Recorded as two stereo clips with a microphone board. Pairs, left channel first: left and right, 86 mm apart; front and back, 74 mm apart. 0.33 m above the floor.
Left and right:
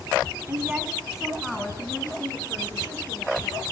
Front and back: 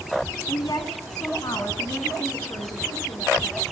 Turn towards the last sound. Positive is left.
turn(degrees=35)